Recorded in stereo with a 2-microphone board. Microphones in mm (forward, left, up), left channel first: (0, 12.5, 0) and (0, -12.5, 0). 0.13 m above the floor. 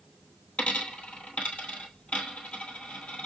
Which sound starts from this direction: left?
A dropped coin, at 0.6 s.